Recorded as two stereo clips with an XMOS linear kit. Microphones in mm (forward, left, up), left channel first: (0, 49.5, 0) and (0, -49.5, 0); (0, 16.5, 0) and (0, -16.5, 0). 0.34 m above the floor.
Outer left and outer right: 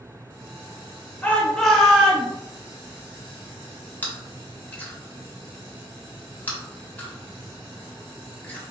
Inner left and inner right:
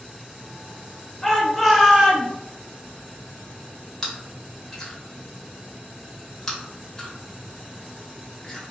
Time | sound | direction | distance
1.2 | a shout | 20° left (ahead or behind) | 0.8 m
4.0 | chewing | 20° left (ahead or behind) | 0.9 m